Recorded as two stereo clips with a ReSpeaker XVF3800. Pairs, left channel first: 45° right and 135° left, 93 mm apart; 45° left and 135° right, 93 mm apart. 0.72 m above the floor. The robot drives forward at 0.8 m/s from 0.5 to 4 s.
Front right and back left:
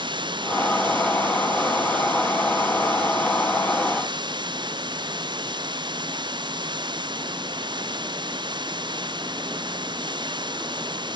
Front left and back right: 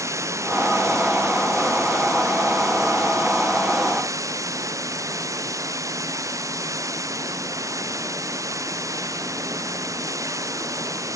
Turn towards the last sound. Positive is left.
turn(degrees=170)